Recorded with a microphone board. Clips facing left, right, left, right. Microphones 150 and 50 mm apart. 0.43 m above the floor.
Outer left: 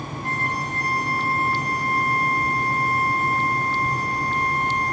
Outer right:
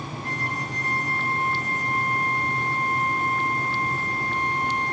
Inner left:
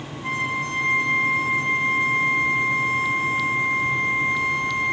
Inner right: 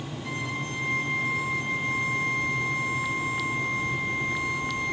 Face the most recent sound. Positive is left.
turn(degrees=85)